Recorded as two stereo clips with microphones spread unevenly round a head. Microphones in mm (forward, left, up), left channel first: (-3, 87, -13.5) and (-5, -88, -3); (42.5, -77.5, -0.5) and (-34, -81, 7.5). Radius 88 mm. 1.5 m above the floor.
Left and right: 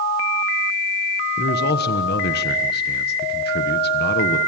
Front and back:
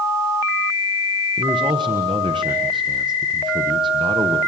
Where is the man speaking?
125° left, 1.3 m.